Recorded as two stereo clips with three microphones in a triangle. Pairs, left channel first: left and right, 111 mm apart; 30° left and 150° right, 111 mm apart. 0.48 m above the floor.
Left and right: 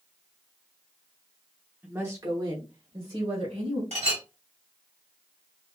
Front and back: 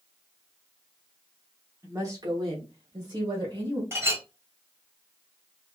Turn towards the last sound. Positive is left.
turn(degrees=-85)